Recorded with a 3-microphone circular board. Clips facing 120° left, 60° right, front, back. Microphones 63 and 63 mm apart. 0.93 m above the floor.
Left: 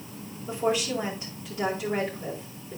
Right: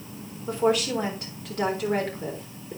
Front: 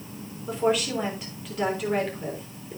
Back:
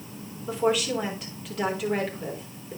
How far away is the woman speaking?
About 4 m.